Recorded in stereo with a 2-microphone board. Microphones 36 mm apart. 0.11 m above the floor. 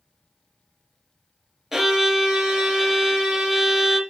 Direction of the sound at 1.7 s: 10° right (ahead or behind).